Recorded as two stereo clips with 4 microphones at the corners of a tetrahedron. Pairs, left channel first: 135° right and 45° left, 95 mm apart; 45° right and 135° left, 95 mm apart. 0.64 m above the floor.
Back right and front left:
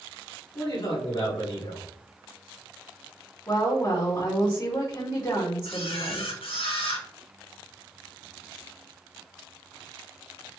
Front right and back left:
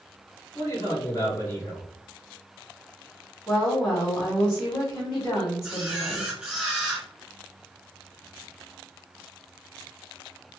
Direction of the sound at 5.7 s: 140° right.